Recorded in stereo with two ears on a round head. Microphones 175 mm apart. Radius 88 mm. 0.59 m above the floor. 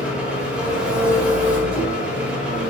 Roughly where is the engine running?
Centre.